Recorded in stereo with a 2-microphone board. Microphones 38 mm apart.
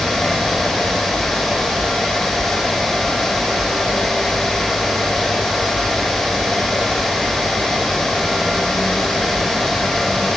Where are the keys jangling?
No keys jangling in this recording.